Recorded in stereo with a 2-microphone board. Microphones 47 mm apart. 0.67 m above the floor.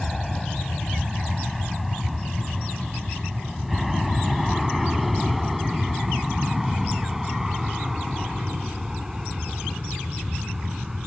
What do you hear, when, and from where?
0.0 s an aircraft: 5° left (ahead or behind); by 11.1 s 10° right (ahead or behind)